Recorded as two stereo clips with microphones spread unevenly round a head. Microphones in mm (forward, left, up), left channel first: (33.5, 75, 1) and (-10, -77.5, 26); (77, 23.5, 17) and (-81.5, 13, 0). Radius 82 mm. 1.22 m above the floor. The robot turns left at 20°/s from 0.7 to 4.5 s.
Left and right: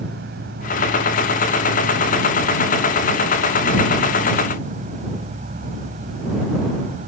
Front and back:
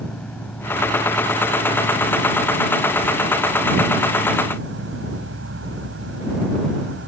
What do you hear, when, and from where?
0.0 s an insect: 80° right; by 7.1 s 155° right